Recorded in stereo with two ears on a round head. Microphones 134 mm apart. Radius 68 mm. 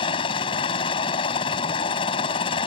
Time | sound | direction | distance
0.0 | a helicopter | 35° left (ahead or behind) | ?